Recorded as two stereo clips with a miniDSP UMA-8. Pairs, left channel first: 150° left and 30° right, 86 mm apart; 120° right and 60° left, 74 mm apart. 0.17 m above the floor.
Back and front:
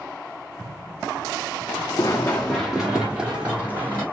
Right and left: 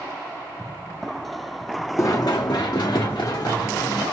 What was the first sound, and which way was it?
Running footsteps, 170° right.